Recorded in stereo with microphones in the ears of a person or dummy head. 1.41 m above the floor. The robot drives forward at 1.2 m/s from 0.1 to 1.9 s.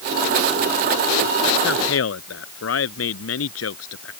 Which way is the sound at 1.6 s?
80° left.